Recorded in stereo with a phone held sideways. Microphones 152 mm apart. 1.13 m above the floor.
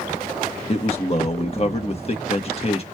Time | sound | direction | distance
0.7 | a man speaking | 40° left (ahead or behind) | 1.4 m